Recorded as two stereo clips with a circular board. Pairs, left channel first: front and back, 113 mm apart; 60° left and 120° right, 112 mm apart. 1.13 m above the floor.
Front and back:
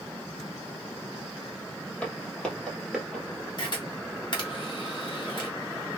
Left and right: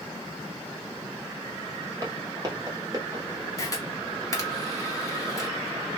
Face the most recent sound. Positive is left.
turn(degrees=15)